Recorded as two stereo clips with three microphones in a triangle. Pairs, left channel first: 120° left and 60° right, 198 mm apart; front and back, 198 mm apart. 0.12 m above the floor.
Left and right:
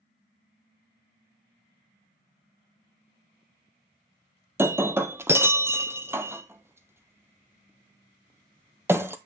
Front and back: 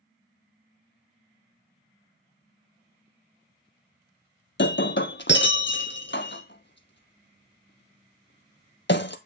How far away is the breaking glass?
About 0.7 m.